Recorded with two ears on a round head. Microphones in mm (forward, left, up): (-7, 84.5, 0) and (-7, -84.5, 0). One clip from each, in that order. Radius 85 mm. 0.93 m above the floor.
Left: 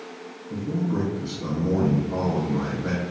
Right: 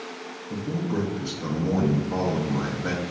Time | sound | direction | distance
0.5 | a man speaking | 40° right (ahead or behind) | 0.6 m